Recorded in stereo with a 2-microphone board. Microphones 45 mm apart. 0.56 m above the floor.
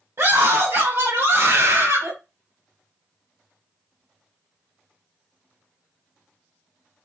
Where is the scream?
65° right (ahead or behind), 2 m.